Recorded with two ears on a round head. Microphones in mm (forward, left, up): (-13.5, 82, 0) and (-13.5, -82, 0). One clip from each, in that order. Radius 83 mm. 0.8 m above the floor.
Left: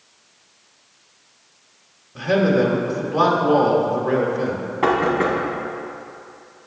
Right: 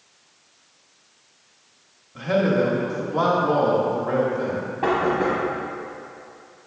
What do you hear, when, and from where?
2.1 s a man speaking: 10° left (ahead or behind), 0.7 m
4.8 s knocking: 35° left (ahead or behind), 1.1 m